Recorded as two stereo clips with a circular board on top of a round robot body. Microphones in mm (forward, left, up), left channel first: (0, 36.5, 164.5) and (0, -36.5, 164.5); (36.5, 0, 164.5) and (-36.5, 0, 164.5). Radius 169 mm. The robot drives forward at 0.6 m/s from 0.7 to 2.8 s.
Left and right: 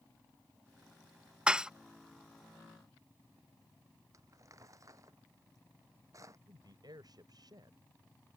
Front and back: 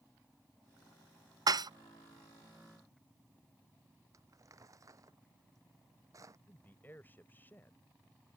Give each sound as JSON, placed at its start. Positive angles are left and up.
{"t": 1.5, "sound": "dishes clattering", "azimuth_deg": -165}
{"t": 4.1, "sound": "crumpling", "azimuth_deg": -135}
{"t": 6.5, "sound": "a man speaking", "azimuth_deg": -65}